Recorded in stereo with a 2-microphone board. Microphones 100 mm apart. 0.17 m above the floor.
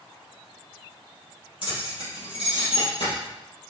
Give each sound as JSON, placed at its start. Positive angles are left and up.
{"t": 1.6, "sound": "keys jangling", "side_deg": 60, "distance_m": 3.5}